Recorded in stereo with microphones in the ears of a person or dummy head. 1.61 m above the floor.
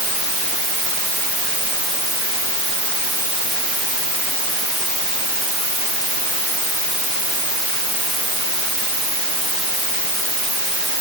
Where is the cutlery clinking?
I don't hear cutlery clinking.